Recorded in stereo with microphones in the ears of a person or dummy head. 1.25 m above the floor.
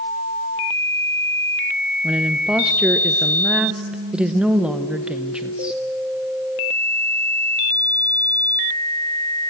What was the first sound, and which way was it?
A woman speaking, 5° right (ahead or behind).